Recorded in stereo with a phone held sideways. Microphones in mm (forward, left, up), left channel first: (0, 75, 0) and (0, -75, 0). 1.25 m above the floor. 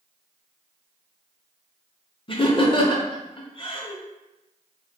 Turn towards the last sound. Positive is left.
turn(degrees=40)  # may be behind; listen again after turning